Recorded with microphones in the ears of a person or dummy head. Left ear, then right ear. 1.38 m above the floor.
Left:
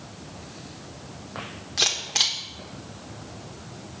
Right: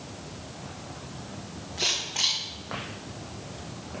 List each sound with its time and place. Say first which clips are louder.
1.8 s a camera shutter: left 4 dB; 50° left (ahead or behind), 1.3 m